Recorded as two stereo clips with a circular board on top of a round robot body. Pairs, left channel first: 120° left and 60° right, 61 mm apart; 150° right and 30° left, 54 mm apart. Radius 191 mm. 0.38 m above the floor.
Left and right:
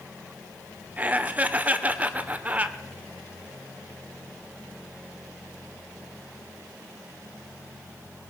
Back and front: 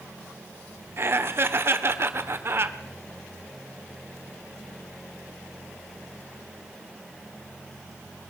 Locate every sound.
1.0 s laughter: 5° left, 2 m